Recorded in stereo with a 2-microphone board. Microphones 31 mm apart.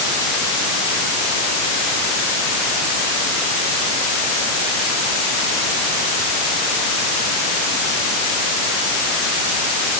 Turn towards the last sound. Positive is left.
No sound to turn to.